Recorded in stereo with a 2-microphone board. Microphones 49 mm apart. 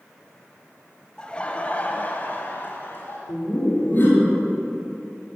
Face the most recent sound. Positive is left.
turn(degrees=40)  # may be behind; listen again after turning